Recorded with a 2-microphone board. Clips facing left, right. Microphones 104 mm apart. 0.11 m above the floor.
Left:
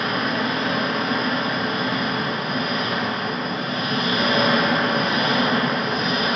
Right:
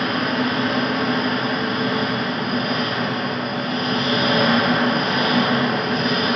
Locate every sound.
0.0 s an engine running: 60° right (ahead or behind), 0.9 m